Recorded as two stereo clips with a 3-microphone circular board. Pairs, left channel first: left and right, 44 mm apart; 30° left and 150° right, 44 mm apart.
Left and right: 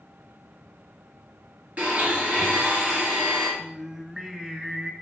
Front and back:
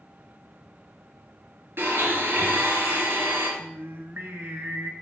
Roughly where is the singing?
Behind.